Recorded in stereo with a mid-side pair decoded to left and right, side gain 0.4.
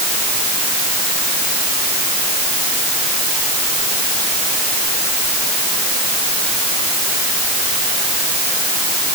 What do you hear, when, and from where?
Only background noise.